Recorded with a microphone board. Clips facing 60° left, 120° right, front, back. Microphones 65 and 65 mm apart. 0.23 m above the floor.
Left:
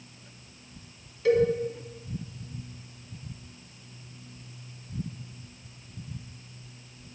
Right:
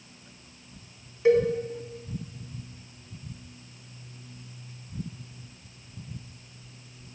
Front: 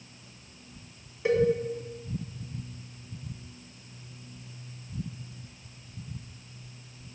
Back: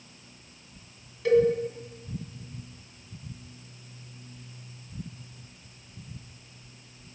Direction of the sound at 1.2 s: 65° right.